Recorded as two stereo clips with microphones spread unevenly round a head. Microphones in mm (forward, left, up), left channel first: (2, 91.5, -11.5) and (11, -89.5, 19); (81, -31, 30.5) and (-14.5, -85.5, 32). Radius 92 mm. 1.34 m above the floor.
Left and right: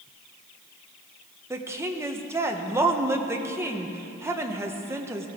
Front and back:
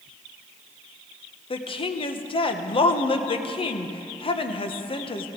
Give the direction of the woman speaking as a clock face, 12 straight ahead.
12 o'clock.